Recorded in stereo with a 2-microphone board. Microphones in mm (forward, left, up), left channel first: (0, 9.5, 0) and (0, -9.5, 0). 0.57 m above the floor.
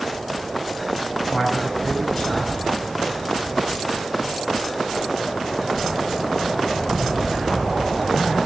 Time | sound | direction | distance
1.3 | a man speaking | 65° left (ahead or behind) | 3.5 m